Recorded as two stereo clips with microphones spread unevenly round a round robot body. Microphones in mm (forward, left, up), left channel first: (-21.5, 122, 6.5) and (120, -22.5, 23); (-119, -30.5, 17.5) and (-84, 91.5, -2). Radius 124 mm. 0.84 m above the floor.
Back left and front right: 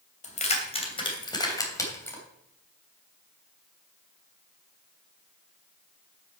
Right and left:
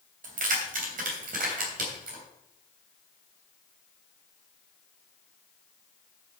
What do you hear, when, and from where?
0.2 s keys jangling: 80° left, 3 m; by 2.2 s 55° left, 3 m